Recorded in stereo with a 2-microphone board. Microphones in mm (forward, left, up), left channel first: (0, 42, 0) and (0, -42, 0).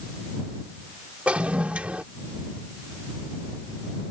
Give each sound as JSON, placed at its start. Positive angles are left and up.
{"t": 1.3, "sound": "a toilet flushing", "side_deg": -15}